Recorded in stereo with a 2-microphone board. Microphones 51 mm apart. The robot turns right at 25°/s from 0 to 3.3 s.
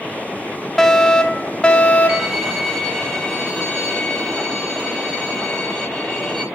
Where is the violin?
10° right, 5.5 m; by 6.4 s 20° left, 5.5 m.